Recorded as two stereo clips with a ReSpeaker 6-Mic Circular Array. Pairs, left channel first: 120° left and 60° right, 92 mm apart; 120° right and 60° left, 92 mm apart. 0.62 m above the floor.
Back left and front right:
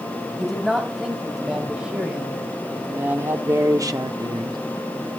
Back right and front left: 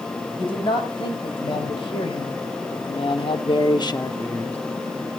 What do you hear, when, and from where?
0.4 s a woman speaking: 145° right, 3.5 m; by 4.6 s 50° right, 0.9 m